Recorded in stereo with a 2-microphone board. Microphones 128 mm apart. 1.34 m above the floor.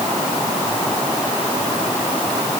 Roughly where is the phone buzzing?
No phone buzzing in this recording.